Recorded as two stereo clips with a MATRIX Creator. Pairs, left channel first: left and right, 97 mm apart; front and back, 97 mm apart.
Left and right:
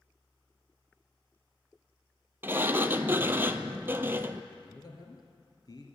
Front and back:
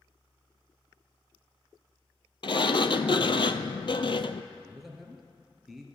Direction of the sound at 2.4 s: 25° right.